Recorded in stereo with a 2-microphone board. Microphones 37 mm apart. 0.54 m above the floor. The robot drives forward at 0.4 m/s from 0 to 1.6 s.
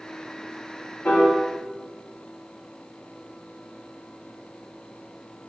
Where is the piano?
65° left (ahead or behind), 0.9 m; by 1.3 s 60° left (ahead or behind), 0.9 m.